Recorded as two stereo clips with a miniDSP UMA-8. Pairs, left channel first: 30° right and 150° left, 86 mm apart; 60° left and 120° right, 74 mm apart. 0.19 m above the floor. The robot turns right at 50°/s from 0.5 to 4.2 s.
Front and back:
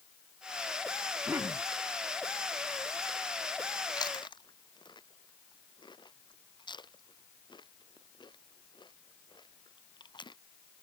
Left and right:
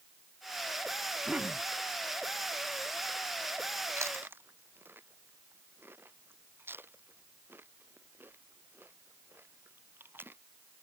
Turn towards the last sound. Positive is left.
turn(degrees=-60)